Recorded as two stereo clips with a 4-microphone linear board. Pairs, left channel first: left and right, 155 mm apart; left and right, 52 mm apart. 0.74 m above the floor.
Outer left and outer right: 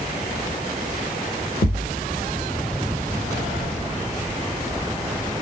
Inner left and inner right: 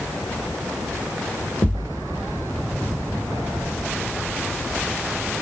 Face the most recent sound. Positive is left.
turn(degrees=60)  # may be behind; listen again after turning